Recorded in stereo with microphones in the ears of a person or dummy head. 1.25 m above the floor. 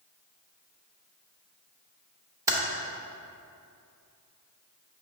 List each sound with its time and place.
2.5 s typing on a keyboard: 20° right (ahead or behind), 1.0 m